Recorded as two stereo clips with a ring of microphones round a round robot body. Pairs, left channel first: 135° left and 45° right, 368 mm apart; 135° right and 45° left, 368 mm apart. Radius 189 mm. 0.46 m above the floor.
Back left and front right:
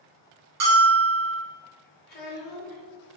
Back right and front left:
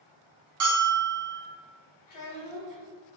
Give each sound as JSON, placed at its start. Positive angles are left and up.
{"t": 0.6, "sound": "a bell", "azimuth_deg": 0, "distance_m": 1.3}
{"t": 2.1, "sound": "a child speaking", "azimuth_deg": -160, "distance_m": 1.3}